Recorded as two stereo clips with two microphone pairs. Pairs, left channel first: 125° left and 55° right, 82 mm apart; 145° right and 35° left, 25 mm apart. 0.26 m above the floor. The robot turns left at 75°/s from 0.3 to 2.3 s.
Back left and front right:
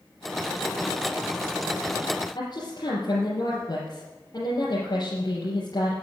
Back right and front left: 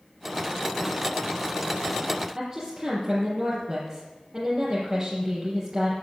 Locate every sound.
2.4 s a woman speaking: 95° left, 4.5 m